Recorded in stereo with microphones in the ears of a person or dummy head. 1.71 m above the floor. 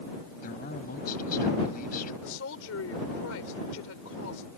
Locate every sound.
0.4 s a man speaking: 45° left (ahead or behind)
2.2 s a woman speaking: 80° left